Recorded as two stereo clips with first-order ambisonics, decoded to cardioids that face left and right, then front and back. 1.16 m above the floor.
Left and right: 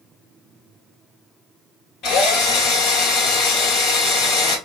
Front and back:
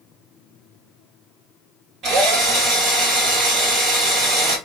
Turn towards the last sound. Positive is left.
turn(degrees=125)